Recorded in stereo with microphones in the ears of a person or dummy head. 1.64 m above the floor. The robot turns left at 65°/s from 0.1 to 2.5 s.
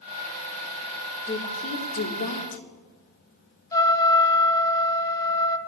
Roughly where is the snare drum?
No snare drum in this recording.